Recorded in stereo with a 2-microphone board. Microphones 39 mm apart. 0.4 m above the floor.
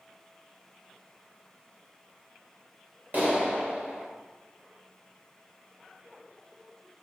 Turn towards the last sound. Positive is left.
turn(degrees=-50)  # may be behind; listen again after turning